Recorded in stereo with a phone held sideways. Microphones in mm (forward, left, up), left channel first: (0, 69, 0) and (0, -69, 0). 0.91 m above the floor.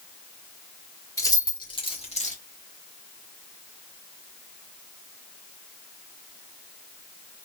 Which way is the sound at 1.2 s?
25° left (ahead or behind).